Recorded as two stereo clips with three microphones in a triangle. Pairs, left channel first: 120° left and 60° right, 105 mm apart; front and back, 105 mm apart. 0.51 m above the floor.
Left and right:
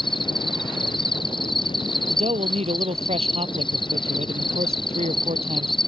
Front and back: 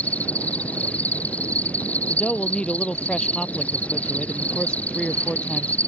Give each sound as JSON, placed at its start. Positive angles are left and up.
{"t": 0.0, "sound": "an insect", "azimuth_deg": 80}
{"t": 2.1, "sound": "a man speaking", "azimuth_deg": -80}